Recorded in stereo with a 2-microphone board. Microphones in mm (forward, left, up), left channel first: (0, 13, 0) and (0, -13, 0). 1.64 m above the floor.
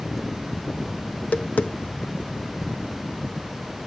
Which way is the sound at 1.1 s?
80° left.